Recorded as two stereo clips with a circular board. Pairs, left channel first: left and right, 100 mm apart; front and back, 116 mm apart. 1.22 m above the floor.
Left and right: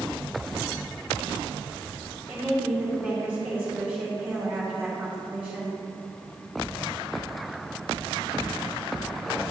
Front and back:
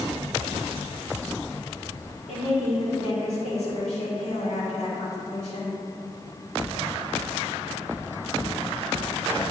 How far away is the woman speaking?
About 3.5 m.